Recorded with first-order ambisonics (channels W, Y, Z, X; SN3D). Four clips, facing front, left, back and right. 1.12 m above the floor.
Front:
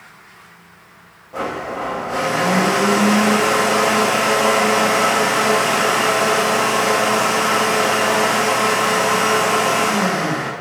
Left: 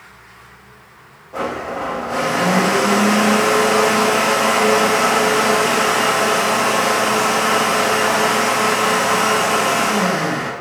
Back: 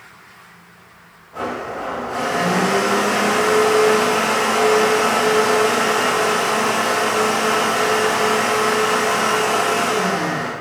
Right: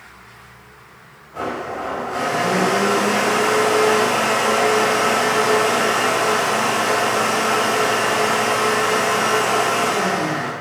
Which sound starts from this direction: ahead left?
A blender, at 1.3 s.